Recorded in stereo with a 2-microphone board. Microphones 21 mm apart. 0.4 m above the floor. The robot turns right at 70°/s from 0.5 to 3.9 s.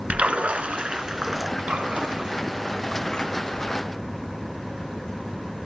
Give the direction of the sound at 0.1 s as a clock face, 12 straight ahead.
3 o'clock.